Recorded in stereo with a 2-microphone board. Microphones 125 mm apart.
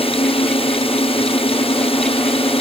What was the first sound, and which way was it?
A drone, 50° left (ahead or behind).